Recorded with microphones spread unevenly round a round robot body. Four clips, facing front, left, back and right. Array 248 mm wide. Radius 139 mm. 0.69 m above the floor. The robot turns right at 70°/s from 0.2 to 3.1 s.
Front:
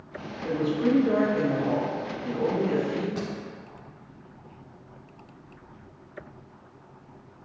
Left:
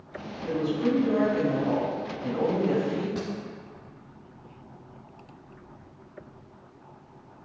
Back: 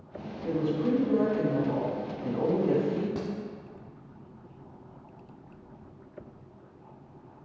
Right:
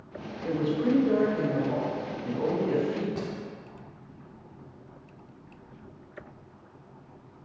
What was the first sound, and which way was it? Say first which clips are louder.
A woman speaking: even, front 3 dB; 40° right.